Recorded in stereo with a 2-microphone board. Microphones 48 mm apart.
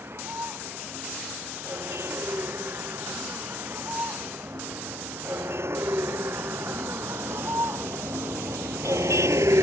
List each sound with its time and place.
0.0 s a vehicle: 50° right (ahead or behind); by 9.6 s 85° right